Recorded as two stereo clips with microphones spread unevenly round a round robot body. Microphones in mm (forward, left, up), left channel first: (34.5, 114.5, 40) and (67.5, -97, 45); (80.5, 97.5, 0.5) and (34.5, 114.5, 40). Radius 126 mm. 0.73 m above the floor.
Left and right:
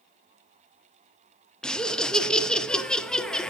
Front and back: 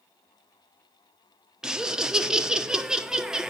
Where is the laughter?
15° left, 0.7 m.